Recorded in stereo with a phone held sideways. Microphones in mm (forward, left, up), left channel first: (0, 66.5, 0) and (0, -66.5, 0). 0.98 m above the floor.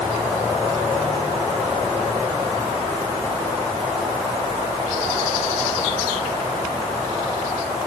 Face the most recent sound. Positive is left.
No sound to turn to.